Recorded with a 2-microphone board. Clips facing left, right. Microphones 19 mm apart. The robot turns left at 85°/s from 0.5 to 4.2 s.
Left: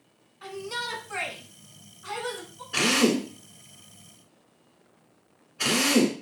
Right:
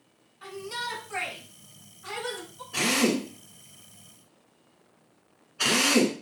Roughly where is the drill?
Left.